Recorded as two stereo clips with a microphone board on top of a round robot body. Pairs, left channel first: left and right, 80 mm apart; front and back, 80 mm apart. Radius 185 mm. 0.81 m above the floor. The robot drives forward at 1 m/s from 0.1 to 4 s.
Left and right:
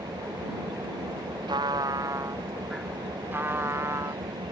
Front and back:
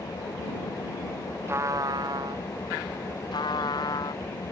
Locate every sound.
0.0 s an engine running: 50° right; by 4.5 s 60° right
1.5 s a trumpet: 120° right; by 2.4 s 150° right
3.3 s a trumpet: 25° right; by 4.2 s 35° right